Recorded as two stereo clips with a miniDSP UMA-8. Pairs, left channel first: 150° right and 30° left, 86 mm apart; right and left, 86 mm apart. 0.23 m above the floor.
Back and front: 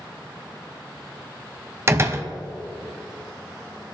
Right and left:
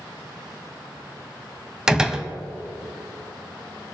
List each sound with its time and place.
1.9 s a door slam: 15° left, 0.9 m